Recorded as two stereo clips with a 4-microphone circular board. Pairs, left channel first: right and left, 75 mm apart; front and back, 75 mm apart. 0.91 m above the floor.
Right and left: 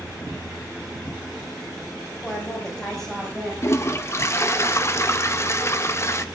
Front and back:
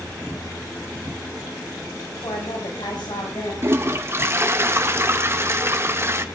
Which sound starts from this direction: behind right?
A toilet flushing, at 3.6 s.